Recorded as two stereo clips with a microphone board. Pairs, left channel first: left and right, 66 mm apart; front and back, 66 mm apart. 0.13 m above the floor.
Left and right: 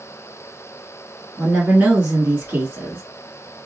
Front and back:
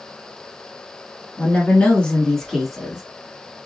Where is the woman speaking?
30° right, 1.3 m; by 3.0 s 110° right, 1.1 m.